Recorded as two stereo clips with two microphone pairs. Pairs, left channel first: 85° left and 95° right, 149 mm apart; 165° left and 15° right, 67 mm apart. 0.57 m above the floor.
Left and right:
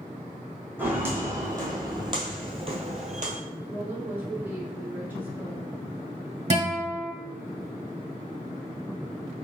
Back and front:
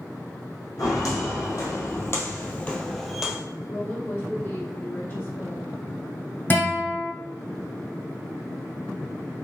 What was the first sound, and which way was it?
Footsteps, 170° right.